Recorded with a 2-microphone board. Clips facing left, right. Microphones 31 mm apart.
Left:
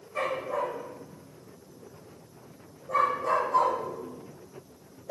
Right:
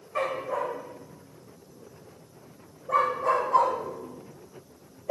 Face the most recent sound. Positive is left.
turn(degrees=-75)  # may be behind; listen again after turning